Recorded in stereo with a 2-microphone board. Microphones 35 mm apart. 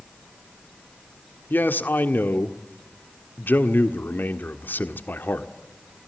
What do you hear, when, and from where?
1.5 s a man speaking: 70° left (ahead or behind), 1.5 m